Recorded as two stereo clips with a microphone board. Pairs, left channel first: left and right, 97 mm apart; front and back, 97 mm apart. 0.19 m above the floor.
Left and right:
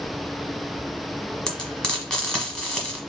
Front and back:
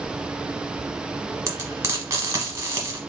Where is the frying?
165° left, 1.1 m.